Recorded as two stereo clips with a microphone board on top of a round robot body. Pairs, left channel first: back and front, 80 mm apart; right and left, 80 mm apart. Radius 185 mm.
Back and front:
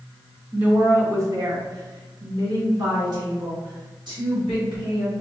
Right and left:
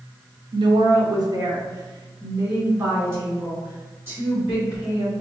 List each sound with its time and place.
0.5 s a woman speaking: 75° left, 0.6 m; by 5.1 s 25° left, 3 m